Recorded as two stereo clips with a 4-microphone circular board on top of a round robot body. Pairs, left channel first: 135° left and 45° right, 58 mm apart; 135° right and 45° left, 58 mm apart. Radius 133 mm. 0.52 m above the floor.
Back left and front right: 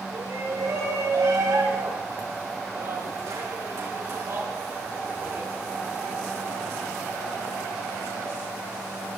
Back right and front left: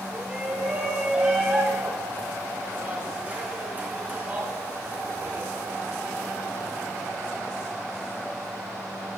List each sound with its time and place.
0.1 s a shout: 25° right, 10 m; by 5.5 s 5° right, 6 m